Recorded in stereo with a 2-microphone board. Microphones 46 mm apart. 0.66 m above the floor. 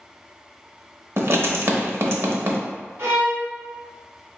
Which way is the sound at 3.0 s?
65° right (ahead or behind).